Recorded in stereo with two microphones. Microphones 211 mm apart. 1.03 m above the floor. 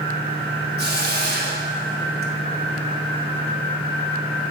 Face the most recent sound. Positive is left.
turn(degrees=-45)  # may be behind; listen again after turning